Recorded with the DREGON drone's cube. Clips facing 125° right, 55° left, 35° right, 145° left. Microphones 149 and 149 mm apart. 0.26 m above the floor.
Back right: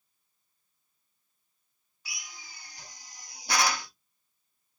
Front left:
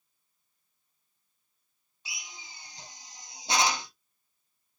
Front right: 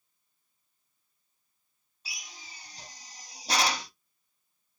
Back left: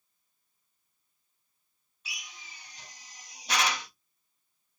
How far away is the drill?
About 0.5 m.